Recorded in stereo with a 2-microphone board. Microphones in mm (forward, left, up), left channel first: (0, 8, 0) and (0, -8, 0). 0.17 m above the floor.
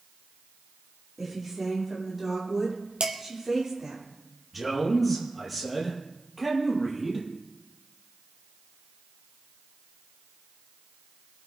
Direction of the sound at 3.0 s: 75° right (ahead or behind).